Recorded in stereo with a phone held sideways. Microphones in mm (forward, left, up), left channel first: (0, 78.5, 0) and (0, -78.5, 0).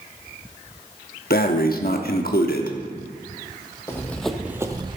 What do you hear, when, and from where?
1.3 s breathing: 70° left (ahead or behind), 0.9 m
3.9 s running footsteps: 15° left (ahead or behind), 1.5 m; by 5.0 s 35° right (ahead or behind), 1.2 m